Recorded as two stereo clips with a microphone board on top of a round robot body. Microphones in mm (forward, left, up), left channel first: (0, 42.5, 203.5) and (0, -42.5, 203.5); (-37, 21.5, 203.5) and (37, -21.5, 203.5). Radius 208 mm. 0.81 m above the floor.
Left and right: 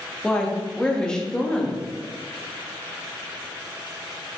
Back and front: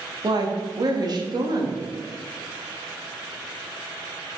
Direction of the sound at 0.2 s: 10° left.